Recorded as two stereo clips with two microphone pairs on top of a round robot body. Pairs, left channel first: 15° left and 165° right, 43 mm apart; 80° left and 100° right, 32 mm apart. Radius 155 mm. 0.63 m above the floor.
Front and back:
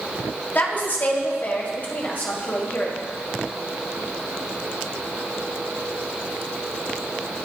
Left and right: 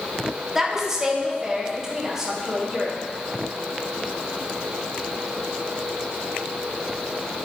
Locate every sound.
0.6 s a woman speaking: 25° right, 2.5 m; by 3.0 s 30° right, 4 m